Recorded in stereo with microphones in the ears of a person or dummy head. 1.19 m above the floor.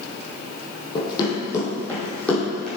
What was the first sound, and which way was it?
Running footsteps, 25° left (ahead or behind).